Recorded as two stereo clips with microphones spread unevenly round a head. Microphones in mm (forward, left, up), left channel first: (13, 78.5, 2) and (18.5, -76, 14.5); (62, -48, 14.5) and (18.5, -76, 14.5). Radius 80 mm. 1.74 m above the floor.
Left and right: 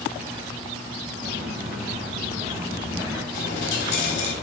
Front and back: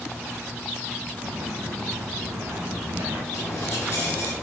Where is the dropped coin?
95° left, 3 m.